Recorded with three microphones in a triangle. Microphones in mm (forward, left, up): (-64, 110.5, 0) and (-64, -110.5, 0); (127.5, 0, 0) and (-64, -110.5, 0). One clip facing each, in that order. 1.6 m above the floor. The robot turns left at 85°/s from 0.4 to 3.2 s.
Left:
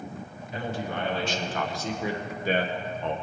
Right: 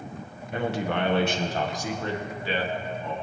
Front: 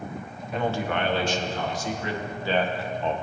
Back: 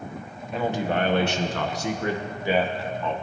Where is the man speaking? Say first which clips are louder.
Right 5 dB, back 2 dB; 60° right, 1.3 m; by 3.1 s 80° left, 1.3 m.